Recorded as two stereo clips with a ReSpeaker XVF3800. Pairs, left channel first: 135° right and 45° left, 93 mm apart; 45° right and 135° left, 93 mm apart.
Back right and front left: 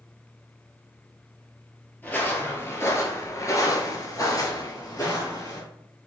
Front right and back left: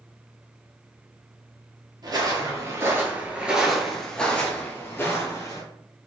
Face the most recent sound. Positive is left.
turn(degrees=-90)